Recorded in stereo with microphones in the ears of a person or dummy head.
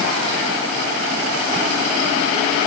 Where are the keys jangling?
No keys jangling in this recording.